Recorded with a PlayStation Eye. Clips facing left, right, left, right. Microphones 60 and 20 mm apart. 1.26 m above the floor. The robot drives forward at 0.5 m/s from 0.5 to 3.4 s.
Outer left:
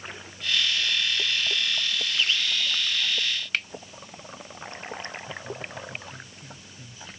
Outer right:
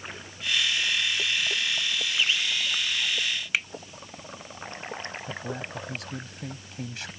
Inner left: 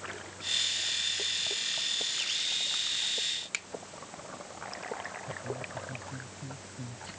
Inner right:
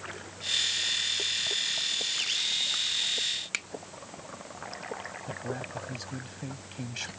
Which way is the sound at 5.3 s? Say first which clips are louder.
Outer right 2 dB, inner right 2 dB; 75° right (ahead or behind).